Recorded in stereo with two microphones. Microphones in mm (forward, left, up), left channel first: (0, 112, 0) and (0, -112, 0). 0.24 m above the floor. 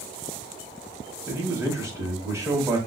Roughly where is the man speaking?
Centre.